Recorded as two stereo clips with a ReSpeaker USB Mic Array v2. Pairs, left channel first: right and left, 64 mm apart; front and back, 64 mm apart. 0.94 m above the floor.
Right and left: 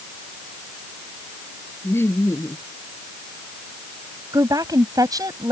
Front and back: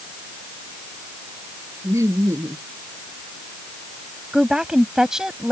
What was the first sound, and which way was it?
Laughter, 140° right.